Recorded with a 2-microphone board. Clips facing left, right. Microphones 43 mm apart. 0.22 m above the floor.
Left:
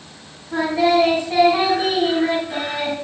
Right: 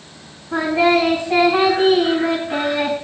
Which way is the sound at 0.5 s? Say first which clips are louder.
Right 1 dB; 15° right (ahead or behind).